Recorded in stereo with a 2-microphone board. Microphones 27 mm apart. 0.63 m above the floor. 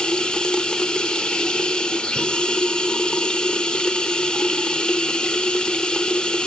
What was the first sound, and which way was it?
Running water, 35° left (ahead or behind).